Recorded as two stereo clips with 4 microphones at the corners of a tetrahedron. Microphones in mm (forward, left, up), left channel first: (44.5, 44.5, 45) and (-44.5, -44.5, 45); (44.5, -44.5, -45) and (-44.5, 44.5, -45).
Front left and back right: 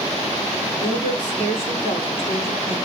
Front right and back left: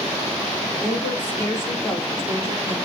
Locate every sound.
0.8 s a woman speaking: 30° left, 5.5 m; by 2.8 s 15° left, 5.5 m